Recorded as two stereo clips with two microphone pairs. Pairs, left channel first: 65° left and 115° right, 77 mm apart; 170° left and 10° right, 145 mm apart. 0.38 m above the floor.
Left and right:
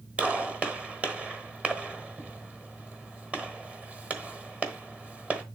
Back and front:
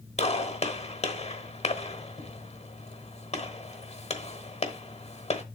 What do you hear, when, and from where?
0.2 s a gunshot: 175° left, 1.1 m